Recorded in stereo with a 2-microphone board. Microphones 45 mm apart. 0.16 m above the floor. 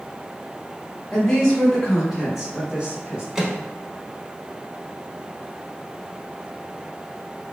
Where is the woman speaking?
10° left (ahead or behind), 1.4 m; by 3.2 s 25° right (ahead or behind), 1.5 m.